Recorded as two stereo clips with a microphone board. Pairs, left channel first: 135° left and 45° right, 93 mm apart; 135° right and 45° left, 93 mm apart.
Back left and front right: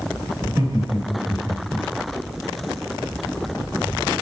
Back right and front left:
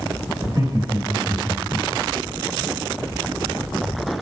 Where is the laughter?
Straight ahead, 5.5 m.